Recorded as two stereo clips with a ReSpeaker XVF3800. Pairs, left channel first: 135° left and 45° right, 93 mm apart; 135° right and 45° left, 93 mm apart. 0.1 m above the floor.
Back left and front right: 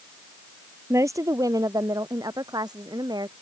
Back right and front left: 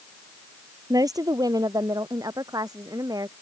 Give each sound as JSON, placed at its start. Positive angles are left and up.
{"t": 0.9, "sound": "a woman speaking", "azimuth_deg": 5}